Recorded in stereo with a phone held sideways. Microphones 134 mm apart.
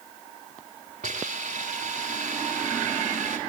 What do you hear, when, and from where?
1.0 s a hiss: 80° right, 6.5 m